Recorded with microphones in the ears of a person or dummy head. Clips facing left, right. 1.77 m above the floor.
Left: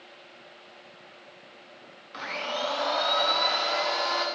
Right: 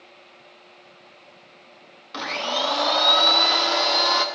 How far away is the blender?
About 0.9 m.